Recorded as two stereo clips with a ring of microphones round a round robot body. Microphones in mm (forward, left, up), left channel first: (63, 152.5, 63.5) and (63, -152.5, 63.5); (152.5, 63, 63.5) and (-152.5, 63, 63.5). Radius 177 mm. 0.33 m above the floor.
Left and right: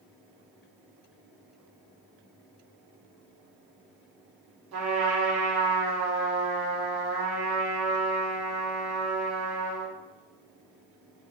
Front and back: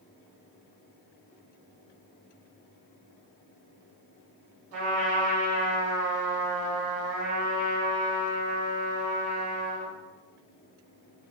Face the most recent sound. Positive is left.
turn(degrees=-135)